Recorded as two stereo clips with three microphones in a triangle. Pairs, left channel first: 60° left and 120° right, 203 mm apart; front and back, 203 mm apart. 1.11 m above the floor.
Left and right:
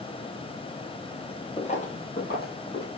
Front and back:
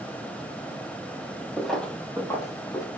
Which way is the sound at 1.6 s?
90° left.